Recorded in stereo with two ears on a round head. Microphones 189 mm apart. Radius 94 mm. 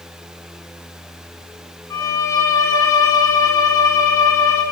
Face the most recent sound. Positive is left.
turn(degrees=15)  # may be behind; listen again after turning